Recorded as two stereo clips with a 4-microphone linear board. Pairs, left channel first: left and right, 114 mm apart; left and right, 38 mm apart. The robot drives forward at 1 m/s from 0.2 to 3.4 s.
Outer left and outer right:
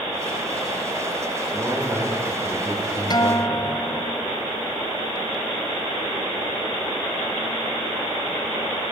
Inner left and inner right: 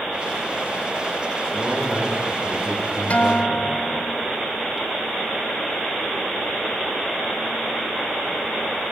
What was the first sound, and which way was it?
A man speaking, 15° right (ahead or behind).